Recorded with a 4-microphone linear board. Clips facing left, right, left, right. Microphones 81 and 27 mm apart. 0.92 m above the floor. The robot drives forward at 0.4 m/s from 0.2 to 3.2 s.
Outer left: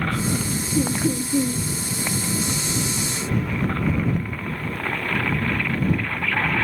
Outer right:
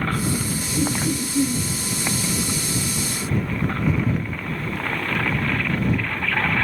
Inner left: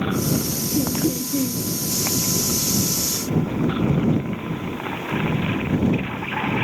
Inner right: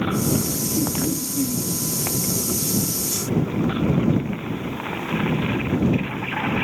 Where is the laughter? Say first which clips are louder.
Outer left 1 dB, inner left 3 dB; 80° left, 3 m.